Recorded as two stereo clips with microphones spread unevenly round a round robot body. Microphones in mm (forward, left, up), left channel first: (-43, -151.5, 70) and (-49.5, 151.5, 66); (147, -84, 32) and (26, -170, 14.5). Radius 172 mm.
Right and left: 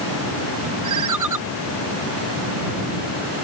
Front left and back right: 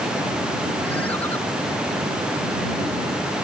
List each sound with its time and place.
0.8 s a ringtone: 120° left